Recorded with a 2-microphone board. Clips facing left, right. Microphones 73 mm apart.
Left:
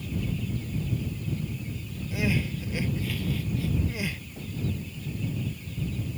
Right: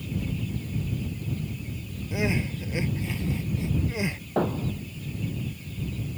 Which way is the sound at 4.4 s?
85° right.